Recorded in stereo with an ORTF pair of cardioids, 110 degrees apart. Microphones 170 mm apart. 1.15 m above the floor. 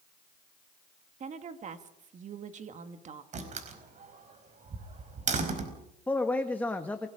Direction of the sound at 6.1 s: 10° left.